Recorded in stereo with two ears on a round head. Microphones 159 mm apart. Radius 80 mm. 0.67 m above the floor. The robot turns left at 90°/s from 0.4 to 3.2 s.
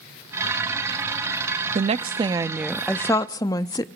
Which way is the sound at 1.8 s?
90° right.